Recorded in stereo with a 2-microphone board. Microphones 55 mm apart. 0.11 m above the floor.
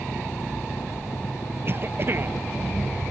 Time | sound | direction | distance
0.0 | an engine running | 70° left (ahead or behind) | ?
1.6 | a cough | 45° right (ahead or behind) | ?